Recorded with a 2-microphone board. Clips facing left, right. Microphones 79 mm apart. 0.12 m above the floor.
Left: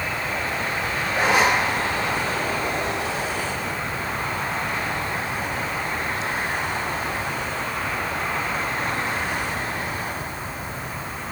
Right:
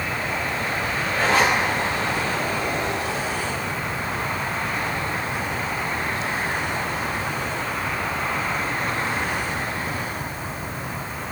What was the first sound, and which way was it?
A zipper, 20° left (ahead or behind).